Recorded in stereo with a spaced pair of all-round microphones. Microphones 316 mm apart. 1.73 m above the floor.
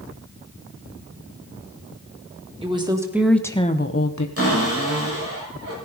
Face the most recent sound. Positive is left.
turn(degrees=-45)  # may be behind; listen again after turning